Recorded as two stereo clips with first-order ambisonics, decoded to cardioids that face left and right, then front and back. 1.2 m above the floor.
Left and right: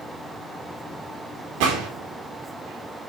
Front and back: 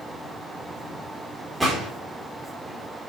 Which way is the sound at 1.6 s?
95° right.